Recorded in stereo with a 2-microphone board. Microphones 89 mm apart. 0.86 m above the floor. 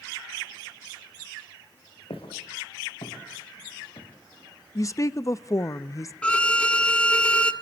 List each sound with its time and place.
2.1 s footsteps: 80° left, 5.5 m; by 4.1 s 65° left (ahead or behind), 7.5 m
4.8 s a woman speaking: 35° left (ahead or behind), 0.6 m
6.2 s a violin: 10° left (ahead or behind), 1.4 m